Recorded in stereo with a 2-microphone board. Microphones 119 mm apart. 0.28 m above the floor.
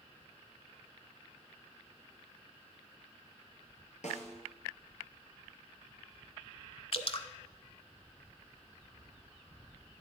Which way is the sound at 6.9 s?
50° left (ahead or behind).